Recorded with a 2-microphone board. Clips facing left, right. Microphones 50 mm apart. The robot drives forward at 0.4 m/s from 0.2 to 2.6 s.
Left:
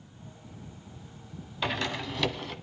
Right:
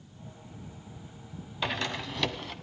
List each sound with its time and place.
1.6 s a door slam: centre (ahead or behind), 1.2 m